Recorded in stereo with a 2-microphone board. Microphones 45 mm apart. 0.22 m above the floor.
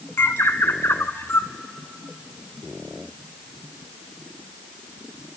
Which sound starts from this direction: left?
A bird, at 0.2 s.